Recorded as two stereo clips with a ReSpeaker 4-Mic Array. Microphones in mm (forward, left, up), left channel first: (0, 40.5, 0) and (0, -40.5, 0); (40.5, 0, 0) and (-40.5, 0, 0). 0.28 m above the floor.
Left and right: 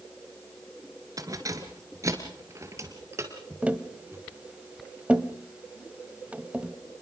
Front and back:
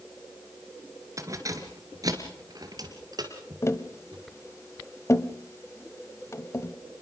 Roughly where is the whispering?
I don't hear whispering.